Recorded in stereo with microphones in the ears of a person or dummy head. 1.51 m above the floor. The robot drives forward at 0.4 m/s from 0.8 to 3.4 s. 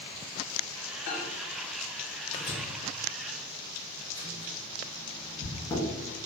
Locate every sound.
1.1 s a microwave: 40° left (ahead or behind), 0.7 m; by 5.8 s 20° left (ahead or behind), 1.4 m